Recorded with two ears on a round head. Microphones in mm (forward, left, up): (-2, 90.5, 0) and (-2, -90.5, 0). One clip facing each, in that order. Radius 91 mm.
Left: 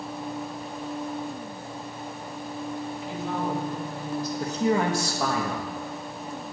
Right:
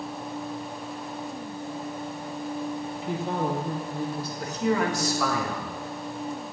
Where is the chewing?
No chewing in this recording.